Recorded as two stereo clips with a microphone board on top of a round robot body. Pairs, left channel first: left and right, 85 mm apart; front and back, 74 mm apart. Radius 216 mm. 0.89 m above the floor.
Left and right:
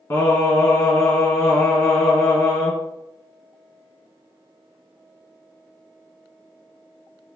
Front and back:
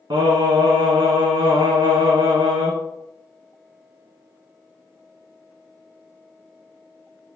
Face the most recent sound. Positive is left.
turn(degrees=150)